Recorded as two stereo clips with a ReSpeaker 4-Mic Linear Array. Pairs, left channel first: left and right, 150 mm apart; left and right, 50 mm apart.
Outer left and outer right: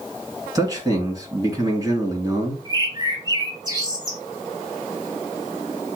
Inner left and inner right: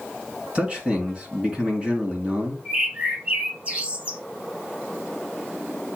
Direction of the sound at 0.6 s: 25° right (ahead or behind).